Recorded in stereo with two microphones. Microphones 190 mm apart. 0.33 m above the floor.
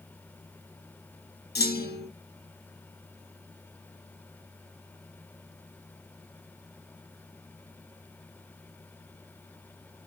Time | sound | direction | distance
1.6 | a clunk | 55° left (ahead or behind) | 0.9 m